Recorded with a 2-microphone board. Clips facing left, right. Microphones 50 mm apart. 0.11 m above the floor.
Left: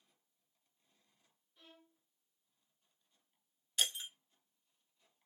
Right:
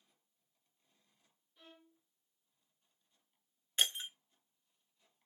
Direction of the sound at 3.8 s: 30° right (ahead or behind).